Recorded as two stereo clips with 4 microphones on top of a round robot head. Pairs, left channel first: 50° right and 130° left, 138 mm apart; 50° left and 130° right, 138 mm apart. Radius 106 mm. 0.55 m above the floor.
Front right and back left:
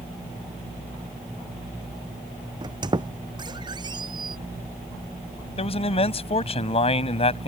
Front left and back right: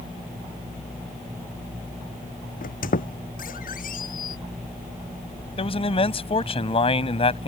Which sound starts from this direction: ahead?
A man speaking, at 5.6 s.